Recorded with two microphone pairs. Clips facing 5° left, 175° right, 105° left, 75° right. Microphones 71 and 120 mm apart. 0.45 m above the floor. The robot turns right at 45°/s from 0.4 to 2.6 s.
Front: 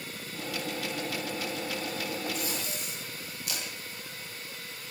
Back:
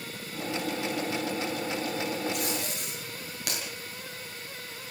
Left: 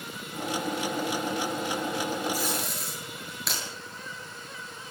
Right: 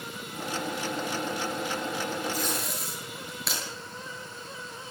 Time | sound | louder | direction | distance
2.3 | tape being pulled | back 3 dB, left 1 dB | straight behind | 9.5 m